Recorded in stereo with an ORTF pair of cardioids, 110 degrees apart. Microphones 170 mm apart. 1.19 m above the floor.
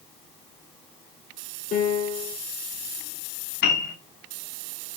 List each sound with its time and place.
1.7 s a piano: 50° left, 7.5 m
3.6 s a piano: 70° left, 5.5 m